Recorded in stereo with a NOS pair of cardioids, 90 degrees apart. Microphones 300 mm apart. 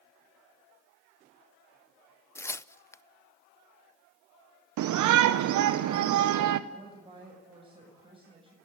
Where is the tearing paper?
10° left, 0.5 m.